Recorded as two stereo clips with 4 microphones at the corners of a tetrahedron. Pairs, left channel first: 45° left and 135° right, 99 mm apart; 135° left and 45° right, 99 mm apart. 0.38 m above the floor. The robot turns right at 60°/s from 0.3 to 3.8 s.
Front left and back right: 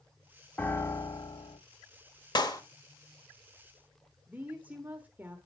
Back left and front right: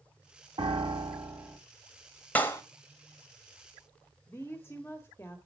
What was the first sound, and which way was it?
A piano, 30° right.